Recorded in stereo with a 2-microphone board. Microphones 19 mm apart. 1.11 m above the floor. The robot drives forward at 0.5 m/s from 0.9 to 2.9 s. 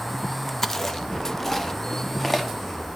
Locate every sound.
0.6 s chewing: 20° left (ahead or behind), 1.2 m; by 2.5 s 10° left (ahead or behind), 2.0 m